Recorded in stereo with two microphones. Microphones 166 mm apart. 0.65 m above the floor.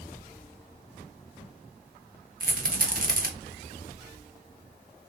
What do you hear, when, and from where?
2.4 s a rattle: 55° right (ahead or behind), 0.6 m